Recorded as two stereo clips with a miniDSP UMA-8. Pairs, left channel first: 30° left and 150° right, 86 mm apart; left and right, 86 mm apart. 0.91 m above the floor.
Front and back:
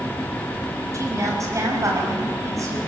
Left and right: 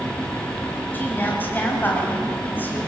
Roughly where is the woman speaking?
Behind.